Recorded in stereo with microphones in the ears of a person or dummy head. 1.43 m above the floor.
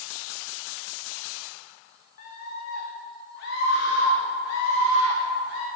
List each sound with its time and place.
2.2 s a scream: 55° left (ahead or behind), 1.9 m; by 5.7 s 80° left, 3 m